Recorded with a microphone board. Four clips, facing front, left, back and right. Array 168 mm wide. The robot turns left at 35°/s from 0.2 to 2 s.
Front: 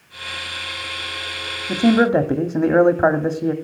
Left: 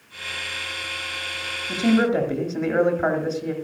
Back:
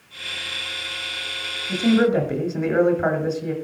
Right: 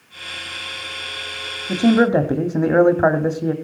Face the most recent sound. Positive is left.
turn(degrees=-45)